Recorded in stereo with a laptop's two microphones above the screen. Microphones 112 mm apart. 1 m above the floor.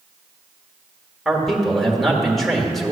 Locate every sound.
1.2 s a man speaking: centre (ahead or behind), 1.8 m